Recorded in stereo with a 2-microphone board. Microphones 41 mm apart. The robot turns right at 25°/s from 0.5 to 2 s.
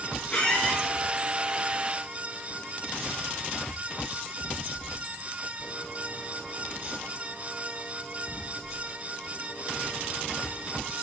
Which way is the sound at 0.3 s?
25° left (ahead or behind).